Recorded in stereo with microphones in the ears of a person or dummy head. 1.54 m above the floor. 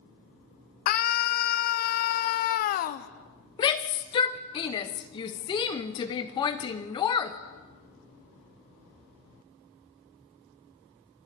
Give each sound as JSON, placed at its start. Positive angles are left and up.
{"t": 0.9, "sound": "a scream", "side_deg": 40, "distance_m": 0.6}
{"t": 3.6, "sound": "a shout", "side_deg": 20, "distance_m": 0.6}